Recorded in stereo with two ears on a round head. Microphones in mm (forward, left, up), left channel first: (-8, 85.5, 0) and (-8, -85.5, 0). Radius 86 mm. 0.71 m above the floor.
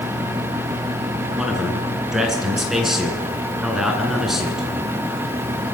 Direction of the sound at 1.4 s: Centre (ahead or behind).